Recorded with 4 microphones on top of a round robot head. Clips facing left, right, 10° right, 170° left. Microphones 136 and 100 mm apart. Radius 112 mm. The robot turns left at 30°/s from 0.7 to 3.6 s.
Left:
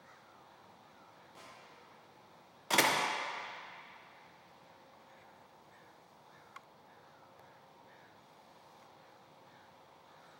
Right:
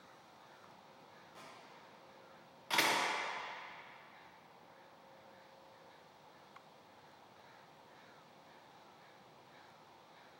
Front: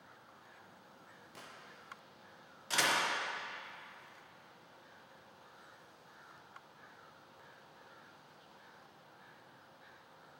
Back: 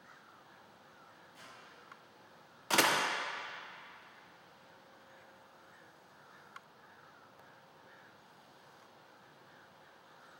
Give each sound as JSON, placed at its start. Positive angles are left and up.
{"t": 1.4, "sound": "a gunshot", "azimuth_deg": 0, "distance_m": 1.0}
{"t": 2.7, "sound": "a door slam", "azimuth_deg": 135, "distance_m": 0.5}